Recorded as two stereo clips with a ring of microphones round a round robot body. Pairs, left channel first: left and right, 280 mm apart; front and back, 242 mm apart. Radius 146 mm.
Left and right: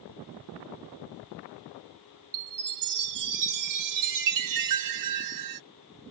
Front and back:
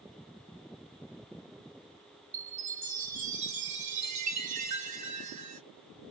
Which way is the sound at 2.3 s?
115° right.